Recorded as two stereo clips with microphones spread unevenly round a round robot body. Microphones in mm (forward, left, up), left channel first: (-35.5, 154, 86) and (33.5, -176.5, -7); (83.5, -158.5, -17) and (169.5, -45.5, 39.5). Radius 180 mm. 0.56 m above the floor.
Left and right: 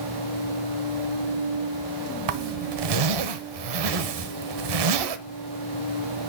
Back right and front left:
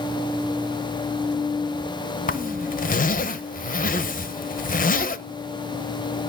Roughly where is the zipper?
Right.